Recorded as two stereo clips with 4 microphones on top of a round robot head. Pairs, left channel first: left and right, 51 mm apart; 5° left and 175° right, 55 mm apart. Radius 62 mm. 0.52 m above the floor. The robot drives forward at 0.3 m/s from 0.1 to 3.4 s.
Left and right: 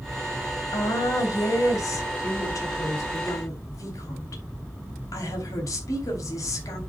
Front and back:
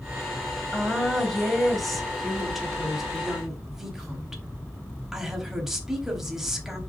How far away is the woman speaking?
About 3.5 m.